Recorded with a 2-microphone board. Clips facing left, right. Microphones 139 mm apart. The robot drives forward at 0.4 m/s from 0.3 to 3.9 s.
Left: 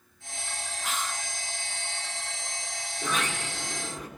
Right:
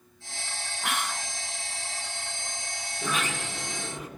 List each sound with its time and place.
0.8 s whispering: 65° right (ahead or behind), 0.8 m; by 1.3 s 55° right (ahead or behind), 0.9 m
3.0 s a sliding door: 5° right (ahead or behind), 8 m